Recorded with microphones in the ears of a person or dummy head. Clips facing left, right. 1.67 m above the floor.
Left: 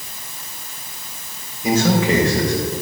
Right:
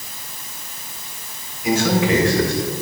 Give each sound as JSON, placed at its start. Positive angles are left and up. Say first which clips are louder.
{"t": 1.6, "sound": "a man speaking", "louder": "left 1 dB", "side_deg": 35, "distance_m": 2.0}